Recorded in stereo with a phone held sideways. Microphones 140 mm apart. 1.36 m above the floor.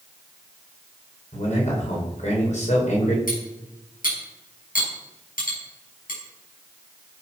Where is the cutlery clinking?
80° left, 6.5 m.